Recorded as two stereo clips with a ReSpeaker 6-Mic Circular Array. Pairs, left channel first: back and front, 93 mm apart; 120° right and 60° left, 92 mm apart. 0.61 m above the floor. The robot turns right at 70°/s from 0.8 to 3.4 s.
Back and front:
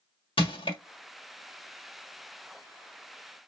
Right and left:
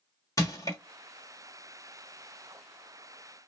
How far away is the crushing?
About 1.1 m.